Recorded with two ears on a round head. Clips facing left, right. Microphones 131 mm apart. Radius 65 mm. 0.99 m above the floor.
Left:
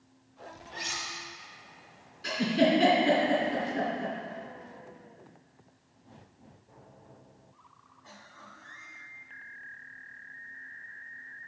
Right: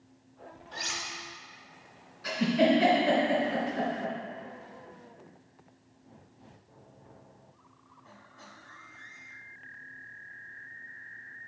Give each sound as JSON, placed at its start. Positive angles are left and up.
{"t": 0.7, "sound": "cutlery clinking", "side_deg": -55, "distance_m": 2.5}
{"t": 2.2, "sound": "a giggle", "side_deg": 30, "distance_m": 3.0}